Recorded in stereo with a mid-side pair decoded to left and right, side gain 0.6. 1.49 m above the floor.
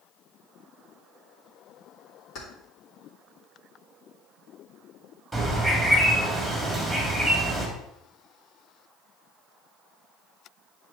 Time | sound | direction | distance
2.4 | keys jangling | 50° left | 3.5 m
5.3 | a bird | 5° right | 3 m